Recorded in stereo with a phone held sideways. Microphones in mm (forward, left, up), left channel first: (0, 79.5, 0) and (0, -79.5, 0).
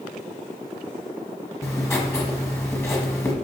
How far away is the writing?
About 1.2 m.